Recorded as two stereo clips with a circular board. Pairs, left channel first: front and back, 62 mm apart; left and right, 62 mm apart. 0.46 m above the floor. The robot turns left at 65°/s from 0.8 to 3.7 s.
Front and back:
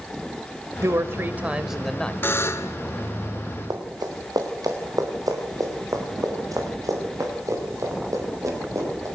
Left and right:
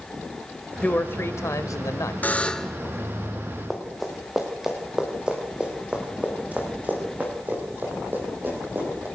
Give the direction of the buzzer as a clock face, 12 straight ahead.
11 o'clock.